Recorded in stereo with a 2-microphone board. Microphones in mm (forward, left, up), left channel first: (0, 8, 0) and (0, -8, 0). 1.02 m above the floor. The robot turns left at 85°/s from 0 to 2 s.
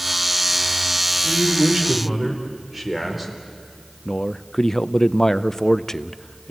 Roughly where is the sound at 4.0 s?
Left.